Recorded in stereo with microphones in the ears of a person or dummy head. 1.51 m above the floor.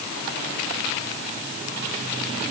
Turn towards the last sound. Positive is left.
No sound to turn to.